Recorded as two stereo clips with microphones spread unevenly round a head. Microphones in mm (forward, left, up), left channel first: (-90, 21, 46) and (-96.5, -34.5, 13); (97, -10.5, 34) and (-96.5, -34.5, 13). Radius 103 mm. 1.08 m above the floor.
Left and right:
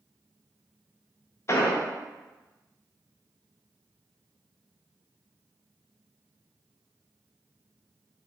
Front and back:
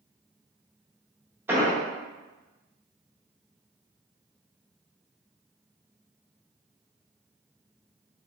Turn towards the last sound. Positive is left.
turn(degrees=105)